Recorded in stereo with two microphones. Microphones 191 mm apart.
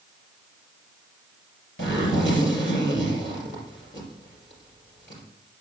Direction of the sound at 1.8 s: 80° left.